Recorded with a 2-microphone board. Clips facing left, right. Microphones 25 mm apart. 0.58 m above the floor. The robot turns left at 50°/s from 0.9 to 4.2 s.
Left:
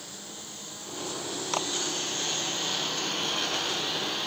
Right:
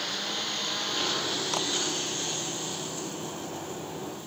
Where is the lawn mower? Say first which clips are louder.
Right 11 dB; 55° right (ahead or behind); by 4.3 s 75° left (ahead or behind).